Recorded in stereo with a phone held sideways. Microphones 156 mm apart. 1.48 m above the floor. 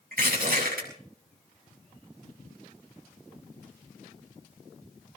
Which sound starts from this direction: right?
Crushing, at 0.1 s.